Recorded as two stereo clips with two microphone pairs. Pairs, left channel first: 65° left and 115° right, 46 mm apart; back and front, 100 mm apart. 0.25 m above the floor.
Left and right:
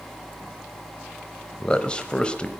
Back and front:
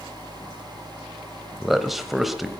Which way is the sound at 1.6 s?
80° left.